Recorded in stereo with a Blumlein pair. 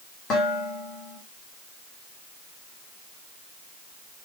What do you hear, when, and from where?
0.3 s dishes clattering: 25° left, 5 m